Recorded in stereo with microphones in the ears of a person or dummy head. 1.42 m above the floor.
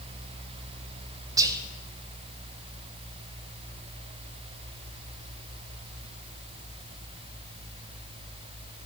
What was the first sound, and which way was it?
Whispering, 20° right (ahead or behind).